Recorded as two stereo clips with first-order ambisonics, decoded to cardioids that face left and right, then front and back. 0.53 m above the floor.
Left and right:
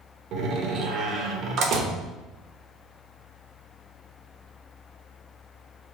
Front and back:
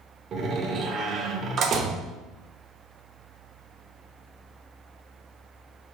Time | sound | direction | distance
0.3 | a door slam | 125° right | 0.7 m